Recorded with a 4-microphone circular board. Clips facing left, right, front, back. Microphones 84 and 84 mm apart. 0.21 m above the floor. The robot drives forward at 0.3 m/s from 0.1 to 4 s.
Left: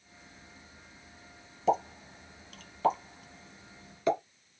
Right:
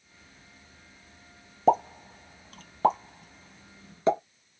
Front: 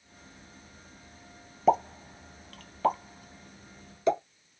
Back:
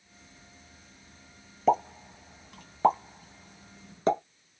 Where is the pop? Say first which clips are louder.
Right 5 dB, front 1 dB; 85° right, 0.7 m; by 4.2 s 145° right, 0.9 m.